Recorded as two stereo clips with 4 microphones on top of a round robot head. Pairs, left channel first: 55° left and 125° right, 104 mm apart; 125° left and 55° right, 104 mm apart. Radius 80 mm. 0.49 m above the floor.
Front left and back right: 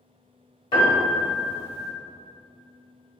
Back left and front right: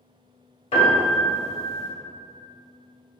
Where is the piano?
95° left, 1.9 m.